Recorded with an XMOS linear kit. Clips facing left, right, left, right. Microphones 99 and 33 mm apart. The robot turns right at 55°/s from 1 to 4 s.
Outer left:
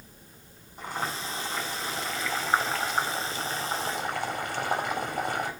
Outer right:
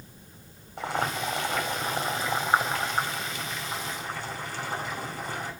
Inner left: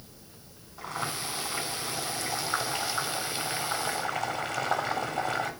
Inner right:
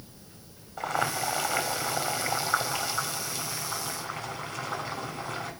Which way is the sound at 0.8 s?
90° right.